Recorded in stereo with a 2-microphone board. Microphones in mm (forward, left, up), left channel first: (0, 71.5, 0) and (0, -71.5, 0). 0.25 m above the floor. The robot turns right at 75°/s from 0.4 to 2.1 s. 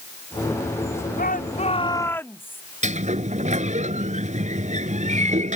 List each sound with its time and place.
1.2 s a shout: 95° left; by 2.6 s 165° left
2.8 s a sliding door: 55° right (ahead or behind)